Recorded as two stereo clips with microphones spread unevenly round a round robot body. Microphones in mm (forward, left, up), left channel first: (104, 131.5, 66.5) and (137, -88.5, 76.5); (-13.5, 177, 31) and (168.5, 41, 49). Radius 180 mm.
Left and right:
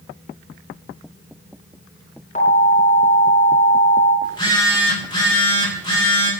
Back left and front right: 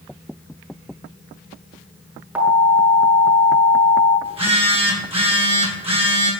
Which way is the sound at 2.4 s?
45° left.